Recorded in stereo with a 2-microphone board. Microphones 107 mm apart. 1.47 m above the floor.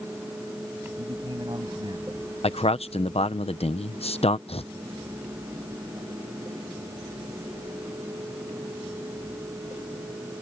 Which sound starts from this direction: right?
A man speaking, at 1.0 s.